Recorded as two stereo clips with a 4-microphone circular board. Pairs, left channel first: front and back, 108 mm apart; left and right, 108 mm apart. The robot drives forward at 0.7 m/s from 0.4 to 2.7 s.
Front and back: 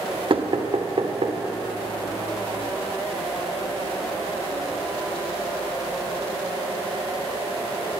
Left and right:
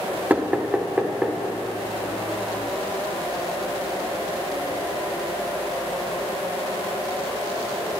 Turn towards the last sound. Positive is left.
turn(degrees=-175)